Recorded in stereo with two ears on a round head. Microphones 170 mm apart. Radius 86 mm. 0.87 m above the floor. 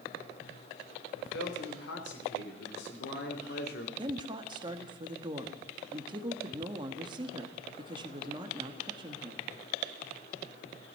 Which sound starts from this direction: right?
A woman speaking, at 4.0 s.